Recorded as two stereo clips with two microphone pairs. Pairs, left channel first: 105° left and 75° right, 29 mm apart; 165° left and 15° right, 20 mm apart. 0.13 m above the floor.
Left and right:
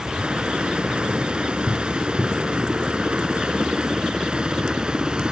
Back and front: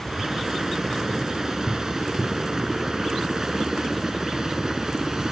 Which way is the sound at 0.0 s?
55° right.